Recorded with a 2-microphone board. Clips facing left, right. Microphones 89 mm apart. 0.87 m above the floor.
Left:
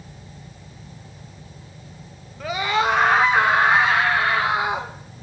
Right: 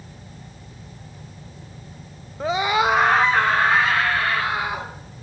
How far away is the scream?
About 0.6 m.